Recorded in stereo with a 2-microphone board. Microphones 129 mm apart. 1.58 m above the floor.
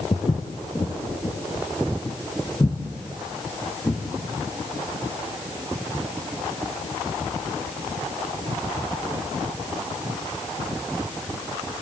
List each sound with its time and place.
0.1 s footsteps: 40° left (ahead or behind), 2.0 m; by 4.0 s 15° left (ahead or behind), 4.5 m